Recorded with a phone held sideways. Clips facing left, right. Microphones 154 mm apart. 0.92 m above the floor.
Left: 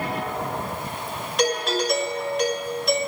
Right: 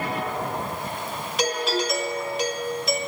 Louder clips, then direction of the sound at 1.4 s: Left 2 dB; centre (ahead or behind).